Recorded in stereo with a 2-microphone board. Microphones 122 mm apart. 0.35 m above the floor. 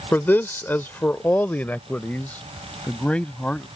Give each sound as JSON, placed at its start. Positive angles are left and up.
{"t": 0.1, "sound": "a man speaking", "side_deg": 15}